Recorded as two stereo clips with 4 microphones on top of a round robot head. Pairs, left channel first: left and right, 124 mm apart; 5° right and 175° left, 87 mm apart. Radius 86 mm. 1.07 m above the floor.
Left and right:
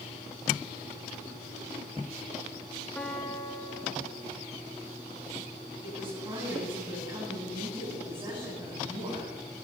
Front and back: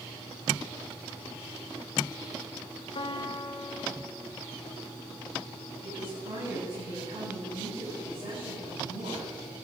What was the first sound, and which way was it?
A piano, 15° left.